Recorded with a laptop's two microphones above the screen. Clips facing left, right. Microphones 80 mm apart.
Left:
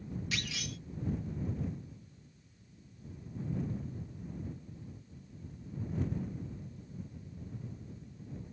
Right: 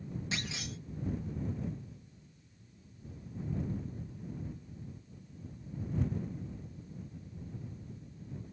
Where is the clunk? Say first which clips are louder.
Even; 25° right (ahead or behind).